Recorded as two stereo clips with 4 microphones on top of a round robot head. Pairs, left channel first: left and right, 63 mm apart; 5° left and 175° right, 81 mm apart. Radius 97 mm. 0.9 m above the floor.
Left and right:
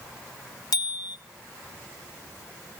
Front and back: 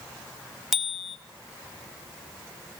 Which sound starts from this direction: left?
A bicycle bell, at 0.7 s.